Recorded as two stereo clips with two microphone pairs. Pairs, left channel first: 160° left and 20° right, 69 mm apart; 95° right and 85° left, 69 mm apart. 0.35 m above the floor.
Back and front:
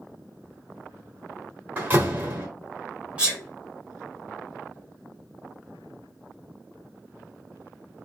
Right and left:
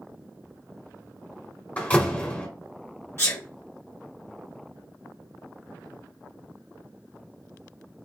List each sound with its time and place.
1.8 s a door slam: 45° right, 1.1 m
3.2 s a sneeze: 80° right, 1.1 m